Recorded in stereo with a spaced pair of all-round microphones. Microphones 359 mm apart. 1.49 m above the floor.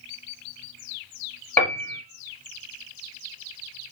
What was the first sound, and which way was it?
A piano, 5° left (ahead or behind).